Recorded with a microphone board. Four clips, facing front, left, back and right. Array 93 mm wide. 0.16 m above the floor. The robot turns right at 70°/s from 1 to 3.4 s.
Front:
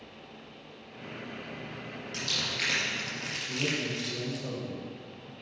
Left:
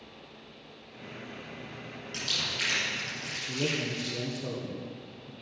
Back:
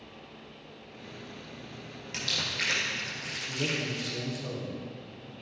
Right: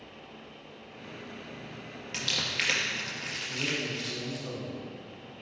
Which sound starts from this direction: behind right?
Crumpling, at 2.1 s.